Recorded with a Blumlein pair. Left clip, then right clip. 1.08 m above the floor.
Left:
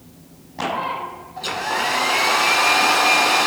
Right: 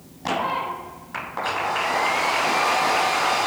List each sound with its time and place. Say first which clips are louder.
1.4 s a hair dryer: left 1 dB; 45° left, 1.8 m